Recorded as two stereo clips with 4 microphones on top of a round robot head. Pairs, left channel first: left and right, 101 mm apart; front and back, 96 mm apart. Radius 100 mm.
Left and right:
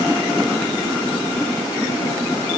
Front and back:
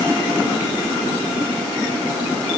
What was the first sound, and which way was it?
Only background noise.